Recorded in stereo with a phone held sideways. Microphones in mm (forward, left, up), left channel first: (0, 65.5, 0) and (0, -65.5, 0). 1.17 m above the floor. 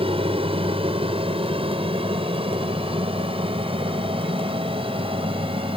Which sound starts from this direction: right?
An aircraft, at 0.0 s.